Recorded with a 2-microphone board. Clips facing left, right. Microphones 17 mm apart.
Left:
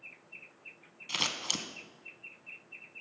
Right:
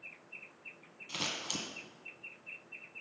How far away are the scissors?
About 0.6 m.